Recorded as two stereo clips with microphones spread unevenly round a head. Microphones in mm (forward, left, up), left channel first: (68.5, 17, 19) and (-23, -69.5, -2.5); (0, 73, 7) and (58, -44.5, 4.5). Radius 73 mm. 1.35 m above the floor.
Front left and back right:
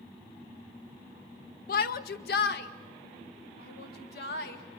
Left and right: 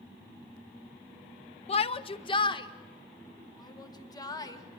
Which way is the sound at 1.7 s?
75° left.